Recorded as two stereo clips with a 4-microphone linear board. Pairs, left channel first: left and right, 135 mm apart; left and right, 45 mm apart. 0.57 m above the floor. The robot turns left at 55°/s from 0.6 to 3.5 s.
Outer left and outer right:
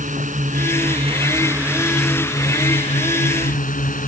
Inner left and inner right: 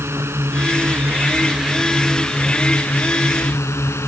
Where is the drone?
105° right; by 4.1 s 95° left.